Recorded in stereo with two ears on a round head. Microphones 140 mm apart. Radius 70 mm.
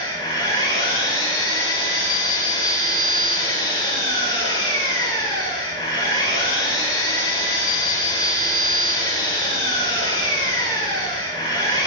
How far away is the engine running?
About 5.5 m.